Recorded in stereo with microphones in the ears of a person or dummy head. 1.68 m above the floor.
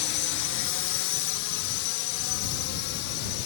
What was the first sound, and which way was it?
A drone, 55° left (ahead or behind).